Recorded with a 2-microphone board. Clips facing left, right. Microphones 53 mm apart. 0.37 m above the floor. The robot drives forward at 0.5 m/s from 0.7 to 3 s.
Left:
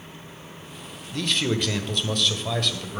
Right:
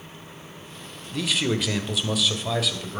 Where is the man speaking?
5° right (ahead or behind), 1.0 m; by 3.0 s centre (ahead or behind), 1.6 m.